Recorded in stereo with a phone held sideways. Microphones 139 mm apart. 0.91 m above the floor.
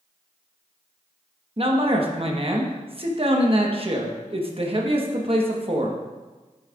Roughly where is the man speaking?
Right.